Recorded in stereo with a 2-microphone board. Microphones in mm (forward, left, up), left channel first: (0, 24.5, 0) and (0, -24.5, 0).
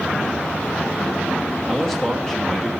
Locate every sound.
1.7 s a man speaking: 10° left (ahead or behind), 1.2 m